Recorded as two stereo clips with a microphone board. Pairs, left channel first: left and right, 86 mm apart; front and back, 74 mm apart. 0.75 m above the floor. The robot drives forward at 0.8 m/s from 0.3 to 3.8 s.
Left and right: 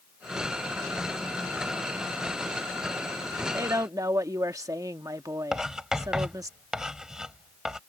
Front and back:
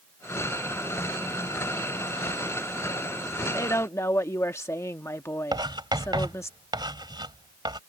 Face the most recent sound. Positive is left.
turn(degrees=-175)